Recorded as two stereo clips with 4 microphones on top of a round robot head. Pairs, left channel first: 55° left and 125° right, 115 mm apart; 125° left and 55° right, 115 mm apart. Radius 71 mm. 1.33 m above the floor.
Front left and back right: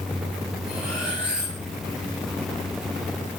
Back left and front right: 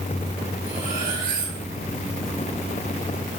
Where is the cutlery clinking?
45° right, 6 m.